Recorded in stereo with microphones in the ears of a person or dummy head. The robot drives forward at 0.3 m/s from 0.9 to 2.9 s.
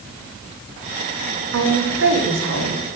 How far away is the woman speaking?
About 1.4 m.